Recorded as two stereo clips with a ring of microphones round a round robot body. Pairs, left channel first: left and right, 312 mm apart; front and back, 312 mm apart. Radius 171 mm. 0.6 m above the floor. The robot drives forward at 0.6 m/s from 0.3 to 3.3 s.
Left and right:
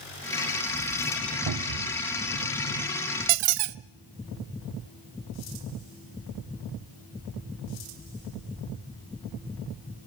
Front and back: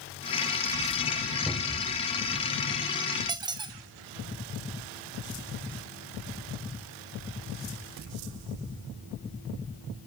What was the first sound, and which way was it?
A cupboard door, 90° right.